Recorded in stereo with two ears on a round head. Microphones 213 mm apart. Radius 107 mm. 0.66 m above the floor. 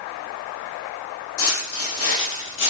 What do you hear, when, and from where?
1.4 s footsteps: 60° left (ahead or behind), 1.5 m; by 2.7 s 45° left (ahead or behind), 0.9 m